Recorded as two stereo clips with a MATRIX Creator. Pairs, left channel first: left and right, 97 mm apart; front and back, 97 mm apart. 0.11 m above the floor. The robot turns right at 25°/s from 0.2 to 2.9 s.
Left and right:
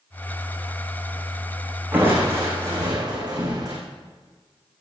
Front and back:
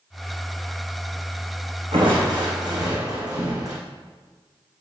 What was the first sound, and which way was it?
Crushing, 160° right.